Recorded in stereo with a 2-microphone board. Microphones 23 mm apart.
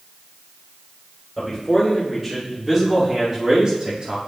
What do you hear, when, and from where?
1.4 s a man speaking: centre (ahead or behind), 3 m; by 4.2 s 50° right (ahead or behind), 2 m